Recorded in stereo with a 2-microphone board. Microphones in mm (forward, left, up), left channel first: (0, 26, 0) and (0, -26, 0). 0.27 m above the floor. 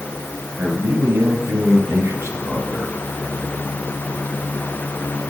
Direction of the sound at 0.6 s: 70° right (ahead or behind).